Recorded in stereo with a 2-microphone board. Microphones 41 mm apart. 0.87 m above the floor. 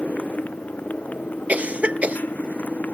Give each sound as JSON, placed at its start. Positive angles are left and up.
{"t": 0.0, "sound": "a motorcycle", "side_deg": 45}
{"t": 1.5, "sound": "a cough", "side_deg": -35}